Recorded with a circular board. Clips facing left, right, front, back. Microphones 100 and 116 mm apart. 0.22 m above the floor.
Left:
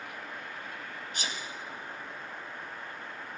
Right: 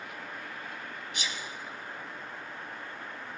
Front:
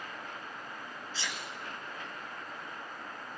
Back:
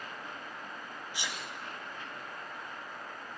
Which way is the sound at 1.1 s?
110° left.